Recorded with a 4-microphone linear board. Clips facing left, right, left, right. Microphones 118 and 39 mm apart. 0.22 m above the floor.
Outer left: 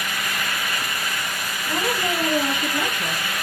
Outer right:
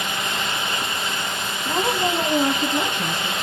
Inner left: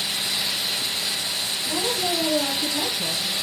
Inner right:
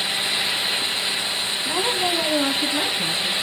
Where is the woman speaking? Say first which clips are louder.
Outer right 2 dB, inner right 3 dB; 35° right (ahead or behind), 1.8 m; by 3.3 s 50° right (ahead or behind), 3 m.